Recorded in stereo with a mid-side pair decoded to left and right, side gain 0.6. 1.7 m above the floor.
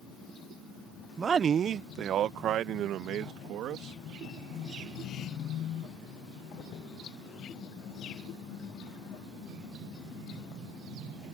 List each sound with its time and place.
1.2 s a man speaking: 25° right; by 4.0 s 60° right